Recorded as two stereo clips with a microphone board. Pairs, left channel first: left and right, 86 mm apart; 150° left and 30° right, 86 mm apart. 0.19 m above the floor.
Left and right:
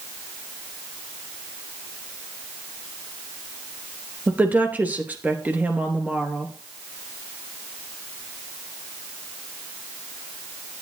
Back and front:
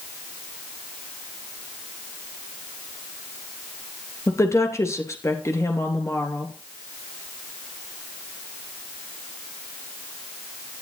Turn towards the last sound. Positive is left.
turn(degrees=-160)